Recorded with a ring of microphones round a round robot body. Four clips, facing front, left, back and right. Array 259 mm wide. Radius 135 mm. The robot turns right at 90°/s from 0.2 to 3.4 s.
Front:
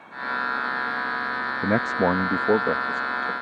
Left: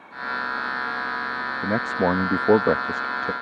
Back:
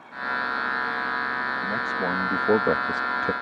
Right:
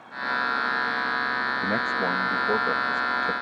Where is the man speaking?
10° left; by 3.3 s 160° left.